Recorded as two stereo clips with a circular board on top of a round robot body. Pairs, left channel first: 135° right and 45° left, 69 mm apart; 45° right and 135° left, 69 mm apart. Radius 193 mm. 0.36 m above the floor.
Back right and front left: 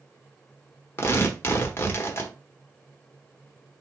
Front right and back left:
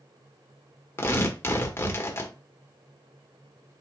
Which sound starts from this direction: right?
Tearing paper, at 1.0 s.